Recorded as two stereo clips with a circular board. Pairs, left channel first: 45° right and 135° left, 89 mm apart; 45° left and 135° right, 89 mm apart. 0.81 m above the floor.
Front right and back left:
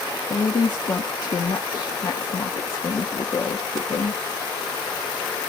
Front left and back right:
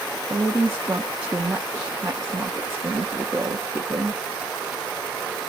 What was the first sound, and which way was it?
A woman speaking, 70° right.